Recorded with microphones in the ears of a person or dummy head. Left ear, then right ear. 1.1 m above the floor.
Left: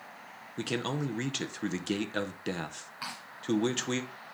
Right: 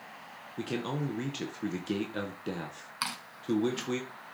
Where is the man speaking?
20° left (ahead or behind), 0.7 m.